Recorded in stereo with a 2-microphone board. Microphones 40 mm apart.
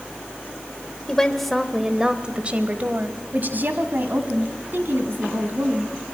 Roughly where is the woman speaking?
Centre.